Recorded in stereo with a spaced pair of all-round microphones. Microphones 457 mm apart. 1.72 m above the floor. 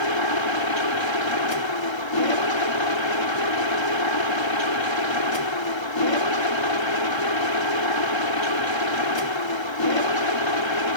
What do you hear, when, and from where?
0.0 s a machine running: 65° left (ahead or behind)